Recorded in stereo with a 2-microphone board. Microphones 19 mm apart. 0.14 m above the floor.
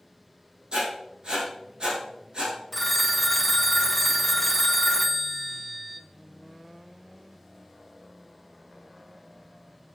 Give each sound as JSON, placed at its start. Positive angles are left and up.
{"t": 0.7, "sound": "writing", "side_deg": -50, "distance_m": 5.5}
{"t": 2.7, "sound": "a phone ringing", "side_deg": 15, "distance_m": 0.6}